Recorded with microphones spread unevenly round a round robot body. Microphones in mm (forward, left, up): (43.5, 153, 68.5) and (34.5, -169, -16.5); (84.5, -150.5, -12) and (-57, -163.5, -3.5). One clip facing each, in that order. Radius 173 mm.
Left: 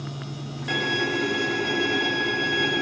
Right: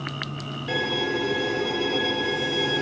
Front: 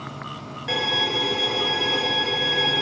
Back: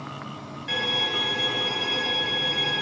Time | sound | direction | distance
0.7 | a violin | 20° left | 1.3 m